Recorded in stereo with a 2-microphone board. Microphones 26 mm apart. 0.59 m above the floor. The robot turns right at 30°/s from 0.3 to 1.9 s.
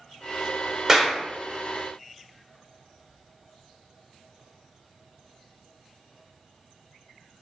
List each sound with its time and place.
0.9 s a clap: 15° right (ahead or behind), 1.4 m; by 1.2 s 5° right (ahead or behind), 1.4 m